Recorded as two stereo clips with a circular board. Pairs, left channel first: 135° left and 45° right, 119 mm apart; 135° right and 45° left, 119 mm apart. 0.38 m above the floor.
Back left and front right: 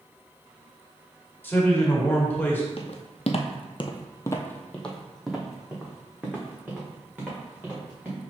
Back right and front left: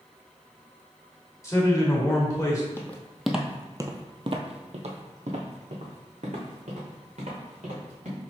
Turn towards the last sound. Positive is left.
turn(degrees=25)